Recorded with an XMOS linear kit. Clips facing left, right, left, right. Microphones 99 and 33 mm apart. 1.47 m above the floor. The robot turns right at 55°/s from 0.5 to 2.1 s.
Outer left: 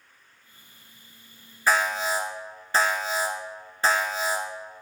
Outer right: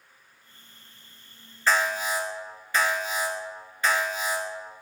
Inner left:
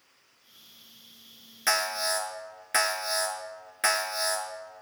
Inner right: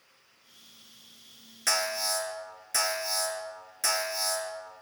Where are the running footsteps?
No running footsteps in this recording.